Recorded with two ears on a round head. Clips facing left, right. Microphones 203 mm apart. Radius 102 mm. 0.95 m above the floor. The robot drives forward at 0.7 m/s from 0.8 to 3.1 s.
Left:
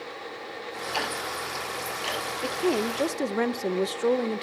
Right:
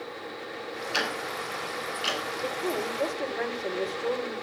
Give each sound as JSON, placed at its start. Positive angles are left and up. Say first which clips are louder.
{"t": 0.9, "sound": "ticking", "louder": "even", "side_deg": -20, "distance_m": 5.5}
{"t": 2.4, "sound": "a woman speaking", "louder": "left 6 dB", "side_deg": 35, "distance_m": 0.8}